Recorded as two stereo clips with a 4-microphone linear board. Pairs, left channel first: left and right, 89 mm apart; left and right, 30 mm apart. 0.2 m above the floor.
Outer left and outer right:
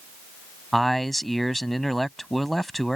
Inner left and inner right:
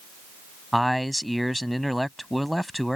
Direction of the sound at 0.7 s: Centre (ahead or behind).